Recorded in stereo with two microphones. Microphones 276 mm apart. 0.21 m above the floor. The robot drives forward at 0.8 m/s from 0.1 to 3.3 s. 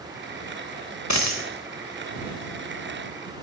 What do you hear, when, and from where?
1.1 s a dropped coin: 80° left, 0.9 m; by 1.4 s 70° left (ahead or behind), 1.0 m